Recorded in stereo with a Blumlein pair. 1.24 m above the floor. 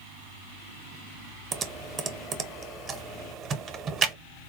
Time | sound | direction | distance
1.5 | typing on a keyboard | 25° right | 0.6 m